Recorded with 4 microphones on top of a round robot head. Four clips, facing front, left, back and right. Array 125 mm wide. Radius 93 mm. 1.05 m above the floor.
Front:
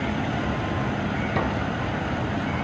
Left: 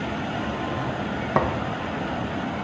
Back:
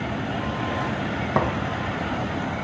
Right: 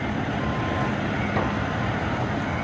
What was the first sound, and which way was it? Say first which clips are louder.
A thud: left 6 dB, back 5 dB; 125° left.